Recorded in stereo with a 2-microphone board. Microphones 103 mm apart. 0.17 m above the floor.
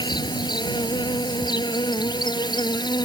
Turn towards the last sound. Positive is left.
turn(degrees=45)  # may be behind; listen again after turning